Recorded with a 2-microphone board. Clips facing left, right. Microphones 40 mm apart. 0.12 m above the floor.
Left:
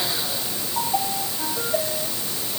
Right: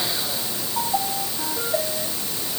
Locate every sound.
Only background noise.